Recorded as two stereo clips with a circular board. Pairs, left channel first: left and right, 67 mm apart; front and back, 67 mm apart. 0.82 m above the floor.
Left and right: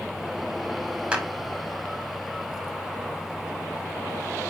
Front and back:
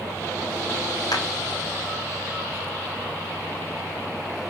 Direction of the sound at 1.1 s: 20° right.